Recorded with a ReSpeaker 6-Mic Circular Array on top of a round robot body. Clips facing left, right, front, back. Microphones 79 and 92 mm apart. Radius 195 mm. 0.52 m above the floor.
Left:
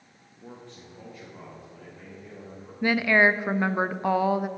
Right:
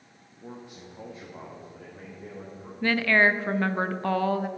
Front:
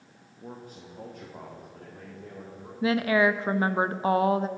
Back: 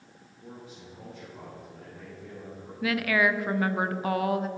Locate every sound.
0.4 s a man speaking: straight ahead, 1.6 m; by 2.7 s 45° right, 3.5 m
2.8 s a woman speaking: 25° left, 0.7 m